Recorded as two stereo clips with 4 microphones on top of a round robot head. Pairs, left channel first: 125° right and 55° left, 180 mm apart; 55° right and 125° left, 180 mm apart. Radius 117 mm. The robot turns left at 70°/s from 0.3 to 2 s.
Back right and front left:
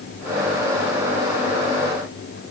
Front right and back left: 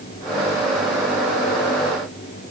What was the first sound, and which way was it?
Only background noise.